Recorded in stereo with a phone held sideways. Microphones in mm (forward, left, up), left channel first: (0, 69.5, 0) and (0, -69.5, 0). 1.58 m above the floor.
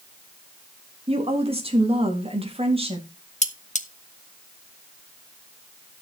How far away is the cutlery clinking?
About 1.3 m.